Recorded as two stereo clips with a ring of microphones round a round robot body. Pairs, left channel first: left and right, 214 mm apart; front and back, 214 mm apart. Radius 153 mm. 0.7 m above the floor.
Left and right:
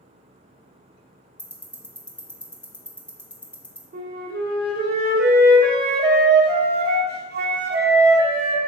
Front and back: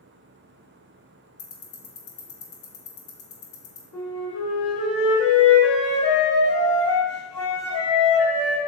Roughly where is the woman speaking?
I don't hear a woman speaking.